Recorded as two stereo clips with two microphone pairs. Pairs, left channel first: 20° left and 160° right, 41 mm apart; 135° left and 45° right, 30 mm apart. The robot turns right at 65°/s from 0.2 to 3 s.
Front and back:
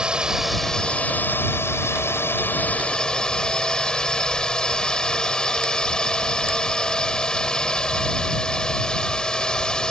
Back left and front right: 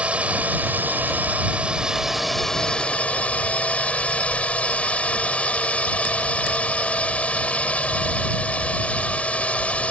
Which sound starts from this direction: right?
A drone, at 0.0 s.